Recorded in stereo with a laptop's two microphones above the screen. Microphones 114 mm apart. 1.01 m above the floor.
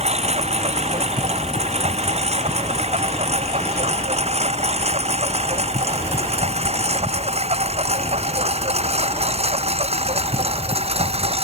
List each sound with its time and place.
0.0 s a lawn mower: 85° right; by 11.4 s 70° right (ahead or behind)